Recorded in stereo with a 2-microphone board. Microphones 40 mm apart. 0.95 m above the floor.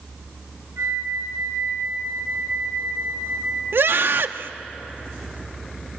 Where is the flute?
85° right, 5 m.